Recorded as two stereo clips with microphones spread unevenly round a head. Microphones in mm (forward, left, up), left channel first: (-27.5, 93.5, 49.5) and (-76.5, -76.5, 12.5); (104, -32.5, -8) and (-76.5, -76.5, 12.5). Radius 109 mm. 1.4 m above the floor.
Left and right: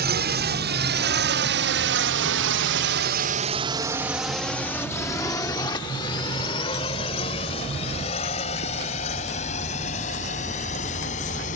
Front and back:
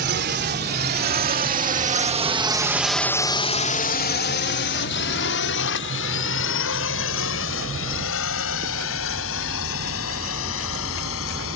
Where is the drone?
135° right; by 11.6 s 15° left.